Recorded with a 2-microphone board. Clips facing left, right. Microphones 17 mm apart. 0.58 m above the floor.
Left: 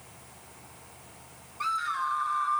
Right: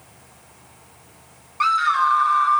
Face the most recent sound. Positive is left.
turn(degrees=-40)  # may be behind; listen again after turning